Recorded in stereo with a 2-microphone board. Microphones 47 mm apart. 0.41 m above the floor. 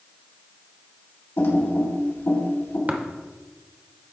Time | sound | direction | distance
1.4 | typing on a keyboard | 65° left (ahead or behind) | 2 m
2.9 | tapping | 40° right (ahead or behind) | 0.8 m